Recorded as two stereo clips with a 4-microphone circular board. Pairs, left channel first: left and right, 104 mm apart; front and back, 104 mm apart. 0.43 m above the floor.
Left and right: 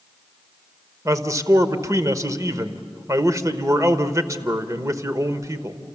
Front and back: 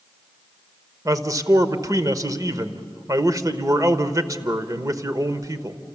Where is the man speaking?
140° right, 1.1 m.